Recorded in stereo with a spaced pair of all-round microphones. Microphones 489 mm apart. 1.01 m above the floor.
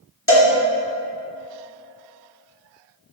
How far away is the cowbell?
About 1.9 m.